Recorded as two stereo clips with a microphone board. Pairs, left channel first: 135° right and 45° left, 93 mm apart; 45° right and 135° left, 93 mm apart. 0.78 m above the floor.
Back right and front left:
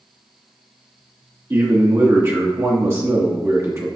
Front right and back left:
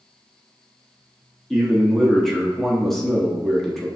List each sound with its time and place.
1.5 s a man speaking: 40° left, 1.0 m